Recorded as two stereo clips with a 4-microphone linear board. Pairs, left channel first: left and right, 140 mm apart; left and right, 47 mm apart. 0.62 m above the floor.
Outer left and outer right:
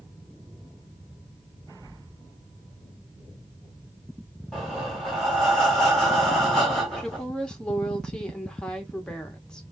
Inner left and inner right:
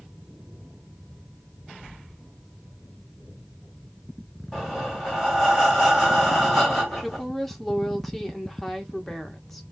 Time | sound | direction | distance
4.5 | breathing | 5° left (ahead or behind) | 1.8 m
7.0 | a woman speaking | 5° left (ahead or behind) | 0.7 m